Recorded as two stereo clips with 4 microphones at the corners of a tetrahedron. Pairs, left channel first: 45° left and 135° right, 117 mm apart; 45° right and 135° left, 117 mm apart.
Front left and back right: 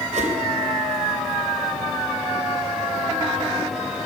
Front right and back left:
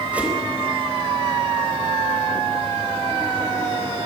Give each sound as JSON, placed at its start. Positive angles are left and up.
{"t": 0.1, "sound": "a whoosh", "azimuth_deg": -145, "distance_m": 4.0}